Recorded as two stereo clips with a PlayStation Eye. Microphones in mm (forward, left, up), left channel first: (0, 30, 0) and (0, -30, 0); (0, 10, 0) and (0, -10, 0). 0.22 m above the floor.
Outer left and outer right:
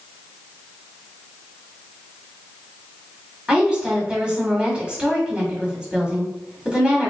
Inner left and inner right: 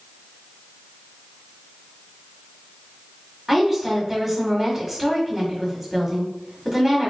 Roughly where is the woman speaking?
Centre.